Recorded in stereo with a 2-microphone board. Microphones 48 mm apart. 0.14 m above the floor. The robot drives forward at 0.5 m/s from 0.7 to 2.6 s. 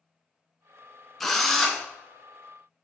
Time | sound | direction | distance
1.2 | a drill | 5° left (ahead or behind) | 0.5 m